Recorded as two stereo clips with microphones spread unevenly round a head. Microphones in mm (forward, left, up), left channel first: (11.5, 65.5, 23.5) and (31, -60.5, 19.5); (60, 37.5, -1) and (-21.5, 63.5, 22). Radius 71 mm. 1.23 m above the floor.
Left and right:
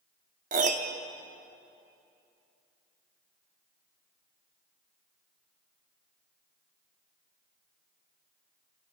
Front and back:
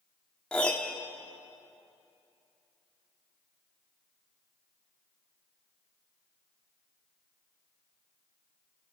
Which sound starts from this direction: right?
A piano, at 0.5 s.